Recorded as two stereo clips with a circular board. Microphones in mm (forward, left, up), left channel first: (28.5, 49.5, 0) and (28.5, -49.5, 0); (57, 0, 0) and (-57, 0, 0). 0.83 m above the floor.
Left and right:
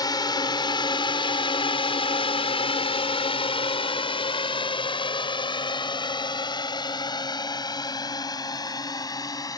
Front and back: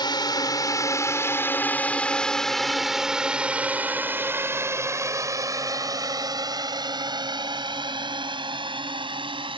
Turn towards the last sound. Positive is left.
turn(degrees=140)